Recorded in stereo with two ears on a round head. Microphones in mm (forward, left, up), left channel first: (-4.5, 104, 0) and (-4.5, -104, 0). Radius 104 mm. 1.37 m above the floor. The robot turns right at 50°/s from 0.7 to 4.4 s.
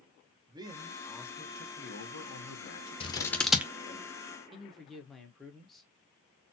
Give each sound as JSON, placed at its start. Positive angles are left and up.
{"t": 0.5, "sound": "a man speaking", "azimuth_deg": -15, "distance_m": 1.0}
{"t": 3.0, "sound": "scissors", "side_deg": 25, "distance_m": 0.6}
{"t": 4.5, "sound": "a man speaking", "side_deg": 0, "distance_m": 1.1}